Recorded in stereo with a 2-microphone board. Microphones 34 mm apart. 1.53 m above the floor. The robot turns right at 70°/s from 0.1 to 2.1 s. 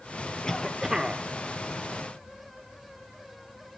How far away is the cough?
About 0.9 m.